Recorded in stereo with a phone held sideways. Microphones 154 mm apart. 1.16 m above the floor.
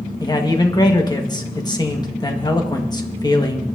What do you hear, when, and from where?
0.2 s a man speaking: 25° left (ahead or behind), 1.6 m